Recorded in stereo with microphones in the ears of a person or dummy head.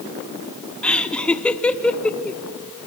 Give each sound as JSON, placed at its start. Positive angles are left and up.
{"t": 0.8, "sound": "laughter", "side_deg": 0, "distance_m": 1.3}